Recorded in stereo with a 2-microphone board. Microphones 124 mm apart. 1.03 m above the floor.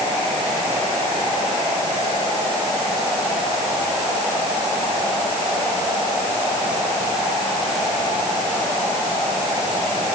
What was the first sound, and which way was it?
Only background noise.